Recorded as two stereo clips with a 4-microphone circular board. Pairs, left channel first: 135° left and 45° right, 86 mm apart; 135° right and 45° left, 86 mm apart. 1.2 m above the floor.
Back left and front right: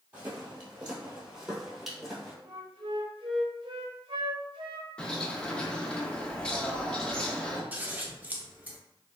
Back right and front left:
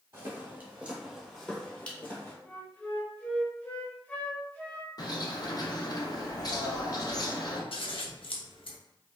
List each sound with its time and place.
0.1 s footsteps: 15° left, 1.4 m; by 2.4 s 140° right, 1.3 m
2.5 s a flute: 65° right, 0.6 m
5.0 s a bird: 150° right, 0.5 m
7.7 s scissors: 120° right, 0.5 m